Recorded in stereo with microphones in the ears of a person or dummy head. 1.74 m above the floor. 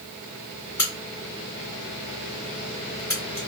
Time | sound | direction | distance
0.8 | a crack | 20° left (ahead or behind) | 2 m